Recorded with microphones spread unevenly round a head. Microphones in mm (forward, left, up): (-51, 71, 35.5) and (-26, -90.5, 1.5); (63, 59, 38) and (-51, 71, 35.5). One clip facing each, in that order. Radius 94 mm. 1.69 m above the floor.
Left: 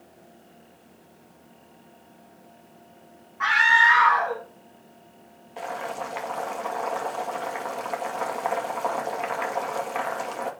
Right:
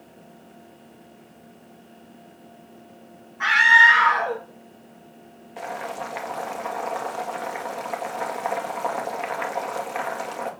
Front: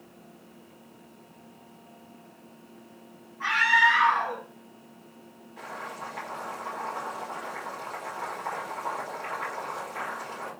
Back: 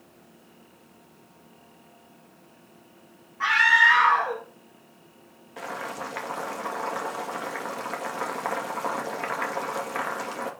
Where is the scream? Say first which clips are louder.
Right 2 dB, back 1 dB; 140° right, 1.9 m.